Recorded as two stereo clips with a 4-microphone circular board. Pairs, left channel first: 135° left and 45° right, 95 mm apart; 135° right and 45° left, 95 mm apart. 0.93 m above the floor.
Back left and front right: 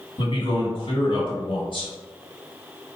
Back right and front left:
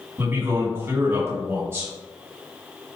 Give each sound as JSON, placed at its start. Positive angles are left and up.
{"t": 0.2, "sound": "a man speaking", "azimuth_deg": 110, "distance_m": 1.8}